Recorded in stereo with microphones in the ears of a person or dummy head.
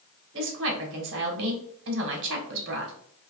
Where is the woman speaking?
60° right (ahead or behind), 1.3 m.